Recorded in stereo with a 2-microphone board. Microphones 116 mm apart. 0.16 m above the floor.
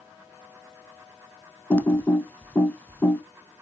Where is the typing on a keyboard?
15° left (ahead or behind), 0.9 m.